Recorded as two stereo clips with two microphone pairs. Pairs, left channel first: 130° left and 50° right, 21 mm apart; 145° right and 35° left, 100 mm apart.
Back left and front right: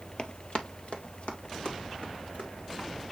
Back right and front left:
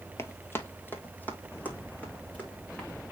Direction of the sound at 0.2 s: 155° left.